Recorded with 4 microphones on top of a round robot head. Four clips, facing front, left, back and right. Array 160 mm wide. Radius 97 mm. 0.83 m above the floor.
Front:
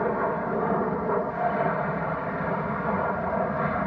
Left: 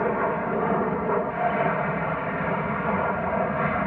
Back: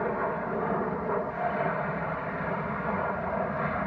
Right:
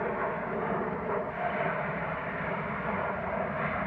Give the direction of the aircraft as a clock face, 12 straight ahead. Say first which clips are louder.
Left 7 dB, front 4 dB; 10 o'clock.